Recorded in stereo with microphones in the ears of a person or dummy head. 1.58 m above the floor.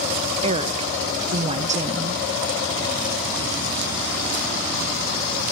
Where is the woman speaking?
30° right (ahead or behind), 1.0 m.